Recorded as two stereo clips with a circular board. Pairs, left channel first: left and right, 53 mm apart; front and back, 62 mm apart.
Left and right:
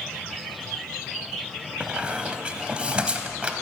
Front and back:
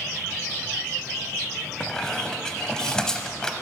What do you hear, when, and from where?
1.8 s a squeak: 60° right, 0.7 m